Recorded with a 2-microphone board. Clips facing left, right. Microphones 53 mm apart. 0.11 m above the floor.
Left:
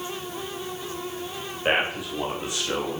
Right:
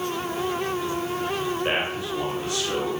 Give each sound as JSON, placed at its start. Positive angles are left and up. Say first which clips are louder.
{"t": 1.6, "sound": "a man speaking", "louder": "left 1 dB", "side_deg": 20, "distance_m": 8.0}